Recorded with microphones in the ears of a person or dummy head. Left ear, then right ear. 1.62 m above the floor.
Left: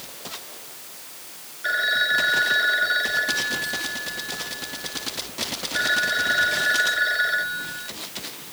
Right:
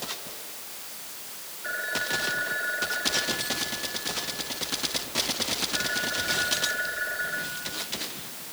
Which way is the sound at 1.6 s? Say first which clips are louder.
Left 9 dB; 75° left (ahead or behind).